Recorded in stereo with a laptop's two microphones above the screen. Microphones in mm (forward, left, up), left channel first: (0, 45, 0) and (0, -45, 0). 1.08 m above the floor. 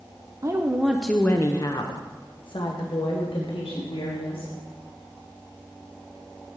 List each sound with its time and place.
0.4 s a woman speaking: 40° right (ahead or behind), 0.6 m; by 4.5 s 75° left (ahead or behind), 2.5 m